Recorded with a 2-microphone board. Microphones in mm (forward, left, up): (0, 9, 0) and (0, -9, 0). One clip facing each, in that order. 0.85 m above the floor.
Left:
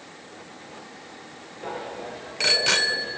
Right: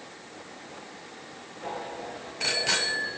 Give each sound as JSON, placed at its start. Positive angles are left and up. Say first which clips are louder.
{"t": 1.6, "sound": "a bicycle bell", "louder": "left 2 dB", "side_deg": 35, "distance_m": 2.5}